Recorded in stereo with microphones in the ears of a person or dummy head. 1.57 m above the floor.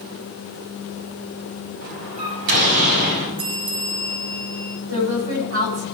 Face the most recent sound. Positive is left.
turn(degrees=-80)